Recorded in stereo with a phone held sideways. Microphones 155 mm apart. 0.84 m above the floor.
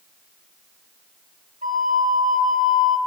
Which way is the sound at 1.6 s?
55° right (ahead or behind).